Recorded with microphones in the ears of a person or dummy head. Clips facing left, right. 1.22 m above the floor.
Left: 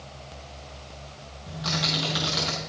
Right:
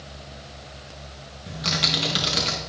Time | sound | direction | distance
1.5 | typing on a keyboard | 30° right (ahead or behind) | 1.6 m